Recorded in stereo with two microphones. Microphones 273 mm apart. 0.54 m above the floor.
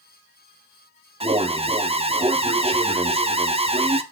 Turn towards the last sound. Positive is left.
turn(degrees=-20)  # may be behind; listen again after turning